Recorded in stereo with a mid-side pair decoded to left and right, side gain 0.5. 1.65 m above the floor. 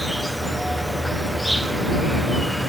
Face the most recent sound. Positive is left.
turn(degrees=-5)